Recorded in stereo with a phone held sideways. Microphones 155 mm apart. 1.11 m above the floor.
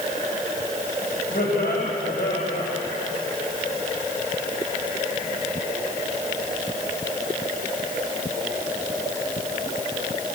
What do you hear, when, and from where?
1.3 s laughter: 85° left, 5.5 m